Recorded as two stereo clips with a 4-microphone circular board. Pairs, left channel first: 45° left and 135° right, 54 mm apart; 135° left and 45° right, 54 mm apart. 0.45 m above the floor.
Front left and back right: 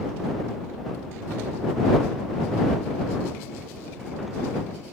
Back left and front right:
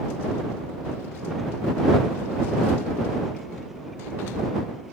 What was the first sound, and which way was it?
Only background noise.